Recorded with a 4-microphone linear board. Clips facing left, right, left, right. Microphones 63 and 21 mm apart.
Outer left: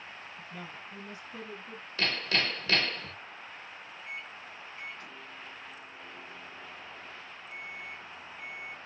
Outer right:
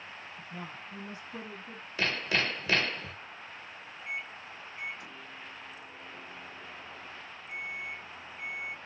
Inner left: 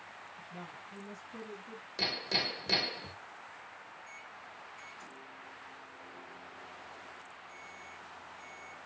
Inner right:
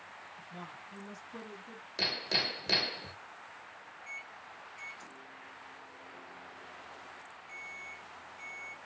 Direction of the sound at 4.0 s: 15° right (ahead or behind).